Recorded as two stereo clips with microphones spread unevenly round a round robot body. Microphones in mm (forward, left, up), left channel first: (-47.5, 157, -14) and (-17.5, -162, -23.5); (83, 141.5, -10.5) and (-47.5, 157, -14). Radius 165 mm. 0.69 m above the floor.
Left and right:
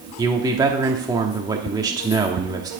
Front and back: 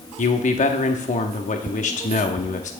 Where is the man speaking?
10° right, 0.9 m.